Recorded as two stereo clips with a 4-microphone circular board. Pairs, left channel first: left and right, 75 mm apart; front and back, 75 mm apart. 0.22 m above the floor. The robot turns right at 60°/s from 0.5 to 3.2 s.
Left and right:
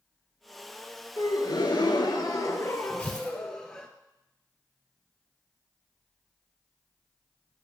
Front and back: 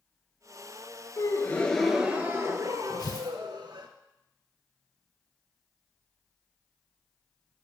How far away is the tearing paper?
About 3 m.